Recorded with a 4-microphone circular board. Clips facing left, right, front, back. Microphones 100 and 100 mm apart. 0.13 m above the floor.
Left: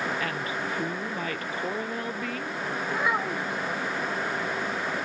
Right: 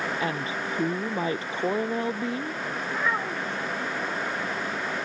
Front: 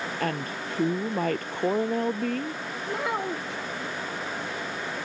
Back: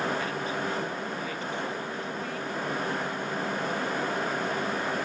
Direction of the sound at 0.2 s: 25° right.